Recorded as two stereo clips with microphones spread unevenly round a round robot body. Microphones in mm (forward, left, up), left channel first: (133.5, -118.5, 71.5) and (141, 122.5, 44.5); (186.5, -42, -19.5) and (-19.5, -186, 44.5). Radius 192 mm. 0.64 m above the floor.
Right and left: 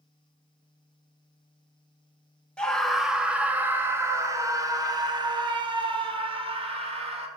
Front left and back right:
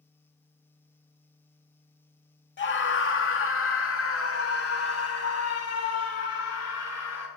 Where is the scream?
5° right, 2.5 m; by 7.3 s 25° left, 5 m.